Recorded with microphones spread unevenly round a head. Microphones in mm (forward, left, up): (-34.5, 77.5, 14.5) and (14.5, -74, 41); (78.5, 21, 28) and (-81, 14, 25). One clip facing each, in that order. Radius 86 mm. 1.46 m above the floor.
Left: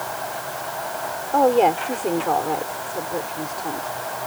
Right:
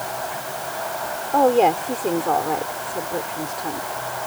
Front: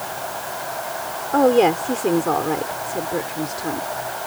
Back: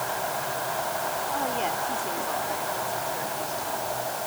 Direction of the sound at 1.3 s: 15° left.